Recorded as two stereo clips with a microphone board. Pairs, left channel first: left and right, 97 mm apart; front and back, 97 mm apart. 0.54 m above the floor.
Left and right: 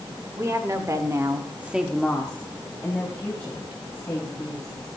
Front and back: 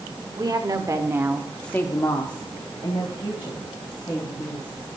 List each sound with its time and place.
0.4 s a woman speaking: 145° right, 2 m; by 4.9 s 25° left, 5 m